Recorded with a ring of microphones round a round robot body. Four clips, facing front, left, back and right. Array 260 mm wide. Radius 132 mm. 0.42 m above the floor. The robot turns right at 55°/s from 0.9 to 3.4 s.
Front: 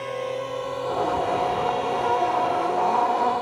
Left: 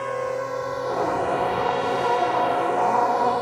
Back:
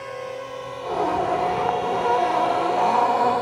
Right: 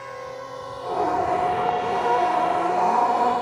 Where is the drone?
70° left; by 3.4 s 130° left.